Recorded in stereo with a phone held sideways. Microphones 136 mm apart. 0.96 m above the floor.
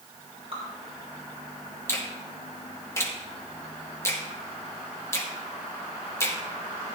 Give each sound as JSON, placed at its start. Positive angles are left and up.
{"t": 0.5, "sound": "dripping", "side_deg": -45, "distance_m": 4.0}
{"t": 1.9, "sound": "a finger snap", "side_deg": 20, "distance_m": 1.2}